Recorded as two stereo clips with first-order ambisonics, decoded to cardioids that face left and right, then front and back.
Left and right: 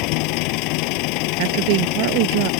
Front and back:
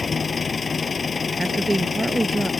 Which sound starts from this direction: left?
An engine running, at 0.0 s.